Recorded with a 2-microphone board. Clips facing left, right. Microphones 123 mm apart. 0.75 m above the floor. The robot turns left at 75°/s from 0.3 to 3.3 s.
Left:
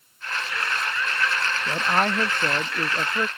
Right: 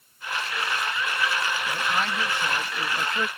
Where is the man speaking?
135° left; by 3.3 s 15° left.